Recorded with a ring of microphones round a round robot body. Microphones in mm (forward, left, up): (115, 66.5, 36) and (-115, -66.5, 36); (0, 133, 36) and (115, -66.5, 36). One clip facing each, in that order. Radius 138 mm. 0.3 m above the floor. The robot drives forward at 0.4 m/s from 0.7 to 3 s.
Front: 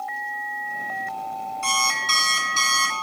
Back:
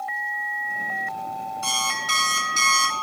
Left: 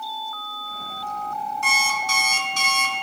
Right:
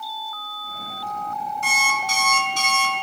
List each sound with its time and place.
1.6 s an alarm clock: 125° left, 2 m; by 2.9 s 135° left, 2.5 m